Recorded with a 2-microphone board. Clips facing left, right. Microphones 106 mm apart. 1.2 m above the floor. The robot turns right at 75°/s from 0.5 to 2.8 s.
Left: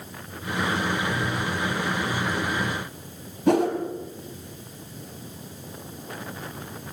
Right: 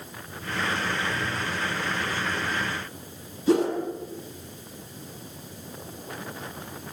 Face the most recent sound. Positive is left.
turn(degrees=75)  # may be behind; listen again after turning